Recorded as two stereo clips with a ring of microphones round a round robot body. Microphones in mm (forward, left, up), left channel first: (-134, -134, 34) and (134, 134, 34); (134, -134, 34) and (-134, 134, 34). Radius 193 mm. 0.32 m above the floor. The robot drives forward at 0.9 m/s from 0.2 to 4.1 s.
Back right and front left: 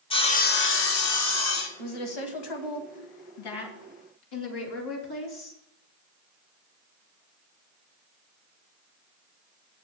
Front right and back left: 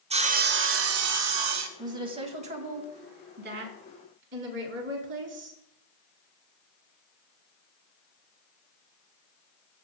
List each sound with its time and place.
0.1 s sawing: 175° left, 0.8 m; by 1.7 s straight behind, 1.8 m
1.8 s a woman speaking: 145° right, 2 m; by 5.6 s 165° right, 4 m